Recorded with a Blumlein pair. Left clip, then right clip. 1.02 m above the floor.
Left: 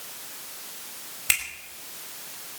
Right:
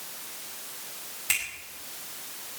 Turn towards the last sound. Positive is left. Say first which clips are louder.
# left 3 dB
turn(degrees=20)